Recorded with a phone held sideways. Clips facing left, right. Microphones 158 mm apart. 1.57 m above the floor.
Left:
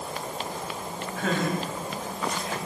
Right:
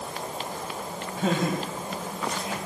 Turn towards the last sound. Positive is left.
turn(degrees=-25)  # may be behind; listen again after turning